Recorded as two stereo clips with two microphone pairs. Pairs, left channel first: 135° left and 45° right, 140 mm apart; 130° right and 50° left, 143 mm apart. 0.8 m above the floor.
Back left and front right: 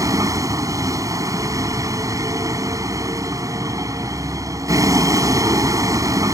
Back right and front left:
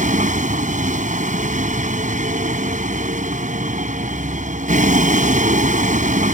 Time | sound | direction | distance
0.0 | a vehicle | 20° left | ?